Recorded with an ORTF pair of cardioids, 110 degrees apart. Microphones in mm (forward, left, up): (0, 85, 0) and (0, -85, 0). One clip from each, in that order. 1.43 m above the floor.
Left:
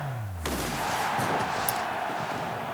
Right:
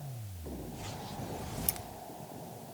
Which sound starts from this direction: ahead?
Keys jangling, at 1.7 s.